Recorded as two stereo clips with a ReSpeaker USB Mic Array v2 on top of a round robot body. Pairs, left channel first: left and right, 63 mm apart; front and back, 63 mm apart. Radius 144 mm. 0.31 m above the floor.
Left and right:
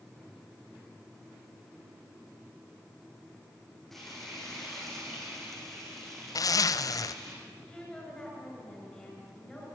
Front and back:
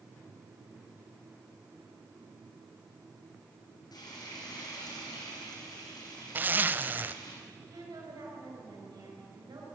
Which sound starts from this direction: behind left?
A zipper, at 6.3 s.